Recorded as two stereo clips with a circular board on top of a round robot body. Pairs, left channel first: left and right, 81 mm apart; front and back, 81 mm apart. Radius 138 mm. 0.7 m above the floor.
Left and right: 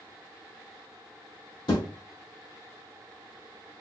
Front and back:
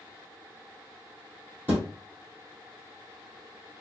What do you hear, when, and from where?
1.7 s a thud: 110° left, 2 m